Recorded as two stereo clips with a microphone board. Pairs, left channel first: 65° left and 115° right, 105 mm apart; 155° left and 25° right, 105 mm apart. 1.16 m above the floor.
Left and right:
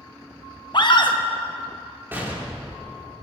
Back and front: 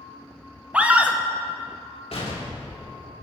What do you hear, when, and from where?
0.7 s a scream: 50° left, 1.0 m
2.1 s an explosion: 175° left, 2.5 m